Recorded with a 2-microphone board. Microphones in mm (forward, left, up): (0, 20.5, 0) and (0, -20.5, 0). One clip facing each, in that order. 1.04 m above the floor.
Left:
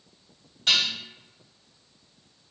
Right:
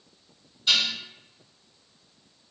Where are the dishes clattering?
85° left, 1.6 m.